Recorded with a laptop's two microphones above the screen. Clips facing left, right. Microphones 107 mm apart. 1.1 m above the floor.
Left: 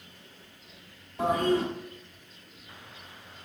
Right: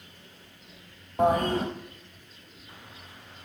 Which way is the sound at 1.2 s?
50° right (ahead or behind).